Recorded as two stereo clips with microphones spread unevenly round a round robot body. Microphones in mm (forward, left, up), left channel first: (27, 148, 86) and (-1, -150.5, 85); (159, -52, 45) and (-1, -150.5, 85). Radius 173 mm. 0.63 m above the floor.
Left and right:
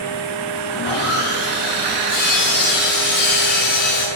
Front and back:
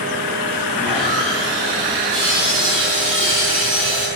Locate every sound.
0.7 s sawing: 145° left, 7.5 m